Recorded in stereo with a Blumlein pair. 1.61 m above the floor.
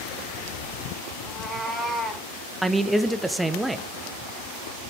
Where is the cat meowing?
5° left, 3 m.